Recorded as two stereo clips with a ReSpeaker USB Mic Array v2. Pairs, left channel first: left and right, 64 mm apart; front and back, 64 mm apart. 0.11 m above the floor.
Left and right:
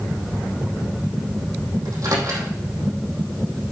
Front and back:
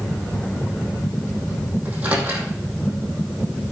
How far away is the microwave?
About 3 m.